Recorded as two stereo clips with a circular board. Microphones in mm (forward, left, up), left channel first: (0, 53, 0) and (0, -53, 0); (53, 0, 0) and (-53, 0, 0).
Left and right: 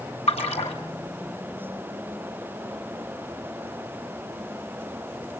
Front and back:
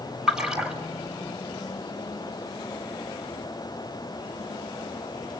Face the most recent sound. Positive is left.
turn(degrees=95)